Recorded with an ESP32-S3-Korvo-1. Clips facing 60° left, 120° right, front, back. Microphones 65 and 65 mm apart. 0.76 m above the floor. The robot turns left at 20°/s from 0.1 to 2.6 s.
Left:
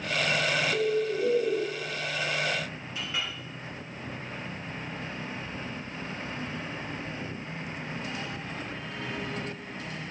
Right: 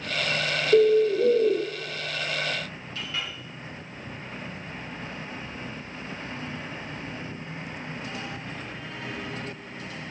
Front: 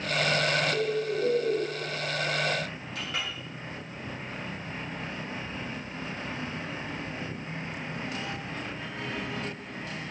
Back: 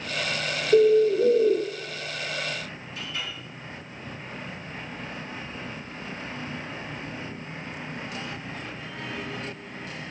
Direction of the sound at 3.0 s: 10° right.